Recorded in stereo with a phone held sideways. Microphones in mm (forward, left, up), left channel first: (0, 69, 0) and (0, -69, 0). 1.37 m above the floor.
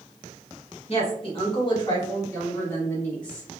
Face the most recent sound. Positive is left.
turn(degrees=10)  # may be behind; listen again after turning